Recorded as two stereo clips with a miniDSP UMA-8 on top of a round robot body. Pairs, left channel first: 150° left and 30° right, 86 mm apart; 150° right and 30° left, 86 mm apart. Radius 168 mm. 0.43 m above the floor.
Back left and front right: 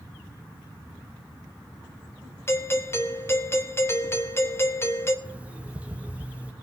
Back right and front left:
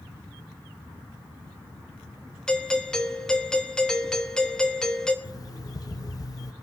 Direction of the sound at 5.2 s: 105° right.